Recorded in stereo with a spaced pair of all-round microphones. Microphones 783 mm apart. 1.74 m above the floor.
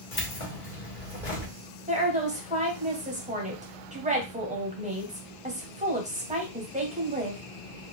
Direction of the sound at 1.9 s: 10° right (ahead or behind).